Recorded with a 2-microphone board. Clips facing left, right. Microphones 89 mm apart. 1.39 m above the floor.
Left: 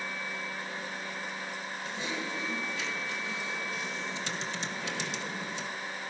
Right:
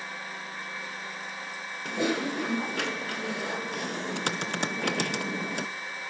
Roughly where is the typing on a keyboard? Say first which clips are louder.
Right 10 dB; right.